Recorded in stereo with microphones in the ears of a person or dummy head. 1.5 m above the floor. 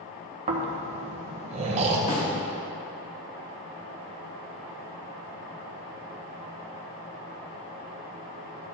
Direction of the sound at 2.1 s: 30° left (ahead or behind).